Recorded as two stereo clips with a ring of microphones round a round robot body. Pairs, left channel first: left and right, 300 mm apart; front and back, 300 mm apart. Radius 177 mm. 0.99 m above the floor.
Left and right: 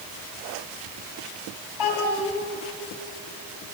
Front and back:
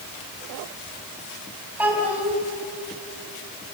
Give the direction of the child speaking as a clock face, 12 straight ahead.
9 o'clock.